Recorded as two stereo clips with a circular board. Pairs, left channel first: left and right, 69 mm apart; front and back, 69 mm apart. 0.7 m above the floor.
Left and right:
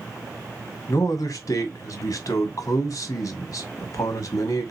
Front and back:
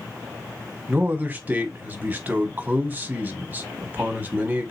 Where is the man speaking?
115° left, 1.1 m.